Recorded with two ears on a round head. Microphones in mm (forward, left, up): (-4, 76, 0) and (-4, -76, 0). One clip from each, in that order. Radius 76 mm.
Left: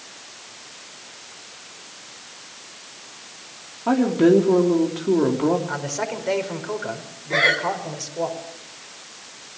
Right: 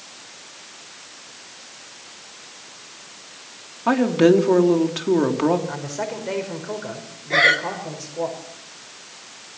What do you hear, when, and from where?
3.9 s a woman speaking: 55° right (ahead or behind), 3 m
5.7 s a man speaking: 25° left (ahead or behind), 5 m
7.3 s breathing: 20° right (ahead or behind), 1.9 m